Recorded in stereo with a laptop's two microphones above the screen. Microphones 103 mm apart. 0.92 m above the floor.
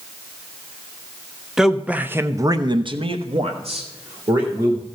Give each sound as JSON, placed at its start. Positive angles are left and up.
{"t": 1.6, "sound": "a man speaking", "side_deg": -5, "distance_m": 1.1}